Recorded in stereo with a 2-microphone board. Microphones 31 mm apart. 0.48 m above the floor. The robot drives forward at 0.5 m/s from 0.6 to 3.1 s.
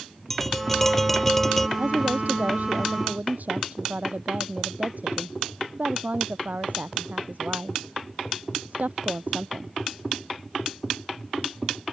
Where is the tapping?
10° left (ahead or behind).